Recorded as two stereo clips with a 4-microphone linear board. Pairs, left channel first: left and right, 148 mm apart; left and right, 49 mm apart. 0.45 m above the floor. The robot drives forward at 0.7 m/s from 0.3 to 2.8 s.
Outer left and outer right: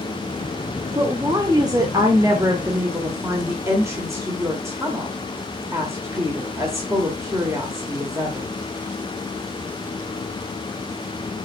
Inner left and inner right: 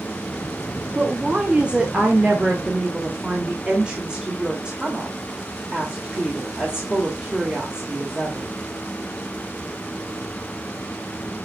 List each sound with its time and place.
0.9 s a woman speaking: 25° right (ahead or behind), 1.1 m; by 8.5 s 15° right (ahead or behind), 1.5 m